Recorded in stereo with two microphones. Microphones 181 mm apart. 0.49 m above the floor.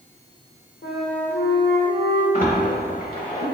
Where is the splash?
50° left (ahead or behind), 0.8 m.